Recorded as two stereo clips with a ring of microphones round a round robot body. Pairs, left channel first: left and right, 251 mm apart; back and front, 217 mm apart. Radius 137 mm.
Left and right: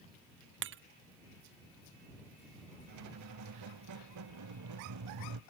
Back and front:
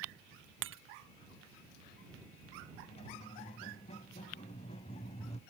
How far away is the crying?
No crying in this recording.